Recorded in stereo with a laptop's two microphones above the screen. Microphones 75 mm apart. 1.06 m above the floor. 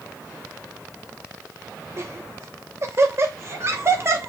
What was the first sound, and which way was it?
Laughter, 35° right (ahead or behind).